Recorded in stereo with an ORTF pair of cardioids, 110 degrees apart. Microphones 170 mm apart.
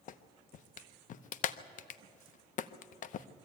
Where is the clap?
50° left, 0.8 m.